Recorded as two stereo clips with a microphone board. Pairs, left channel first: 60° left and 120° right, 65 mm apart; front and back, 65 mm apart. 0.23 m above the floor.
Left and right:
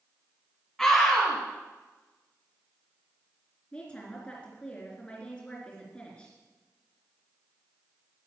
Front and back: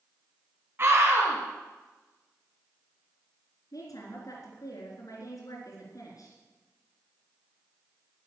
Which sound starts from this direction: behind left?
A scream, at 0.8 s.